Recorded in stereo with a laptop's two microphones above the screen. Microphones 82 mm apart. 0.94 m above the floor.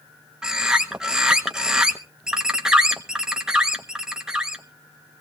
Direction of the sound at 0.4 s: 10° right (ahead or behind).